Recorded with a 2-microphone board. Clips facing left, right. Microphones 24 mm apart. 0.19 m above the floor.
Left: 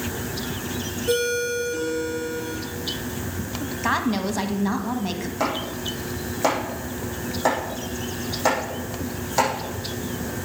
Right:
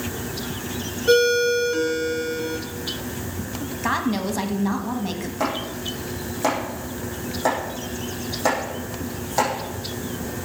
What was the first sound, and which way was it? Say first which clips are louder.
A ringtone: right 6 dB; 45° right (ahead or behind).